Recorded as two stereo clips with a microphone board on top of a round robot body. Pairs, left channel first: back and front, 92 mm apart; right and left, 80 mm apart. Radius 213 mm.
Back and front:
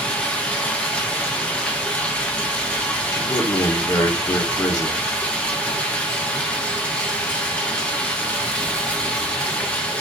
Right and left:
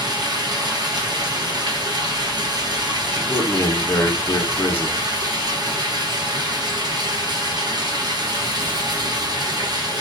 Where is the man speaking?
145° right, 0.9 m.